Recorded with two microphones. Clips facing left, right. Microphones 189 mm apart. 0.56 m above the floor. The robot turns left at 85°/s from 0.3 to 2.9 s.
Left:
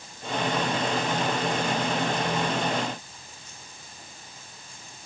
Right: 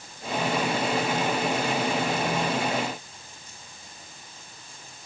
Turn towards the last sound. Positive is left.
No sound to turn to.